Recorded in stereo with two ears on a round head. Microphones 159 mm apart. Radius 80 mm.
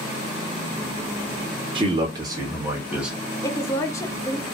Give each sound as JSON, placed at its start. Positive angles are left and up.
{"t": 1.8, "sound": "a man speaking", "side_deg": -30, "distance_m": 1.5}
{"t": 3.4, "sound": "a woman speaking", "side_deg": 15, "distance_m": 0.6}